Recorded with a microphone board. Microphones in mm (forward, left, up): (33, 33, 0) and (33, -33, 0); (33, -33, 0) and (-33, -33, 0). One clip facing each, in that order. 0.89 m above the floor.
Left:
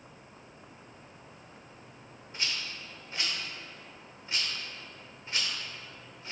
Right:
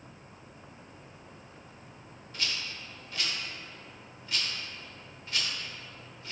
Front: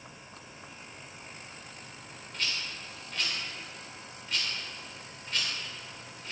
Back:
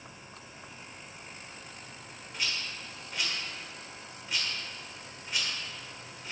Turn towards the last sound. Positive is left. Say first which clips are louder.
# even, even
turn(degrees=115)